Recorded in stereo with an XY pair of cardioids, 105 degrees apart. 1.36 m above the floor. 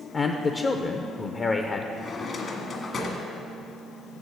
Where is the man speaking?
35° left, 0.7 m.